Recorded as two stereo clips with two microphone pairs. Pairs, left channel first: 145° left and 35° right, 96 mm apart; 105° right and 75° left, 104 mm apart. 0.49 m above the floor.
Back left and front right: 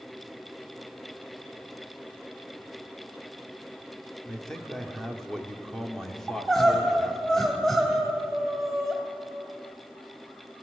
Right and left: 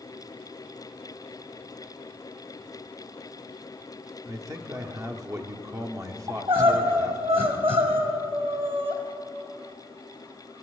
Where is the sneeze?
I don't hear a sneeze.